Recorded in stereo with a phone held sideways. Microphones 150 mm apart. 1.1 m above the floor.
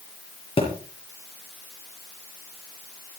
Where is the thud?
35° left (ahead or behind), 6 m.